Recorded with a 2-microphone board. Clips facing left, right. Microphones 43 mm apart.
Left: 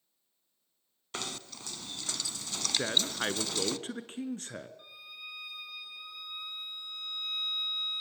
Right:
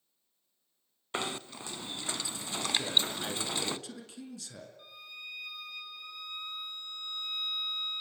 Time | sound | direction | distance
1.1 | knocking | 20° right (ahead or behind) | 0.7 m
2.8 | a man speaking | 45° left (ahead or behind) | 2 m
4.8 | a violin | 5° left (ahead or behind) | 3.5 m